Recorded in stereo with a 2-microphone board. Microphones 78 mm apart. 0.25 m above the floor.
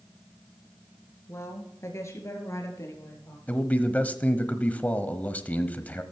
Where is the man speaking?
20° left (ahead or behind), 1.0 m.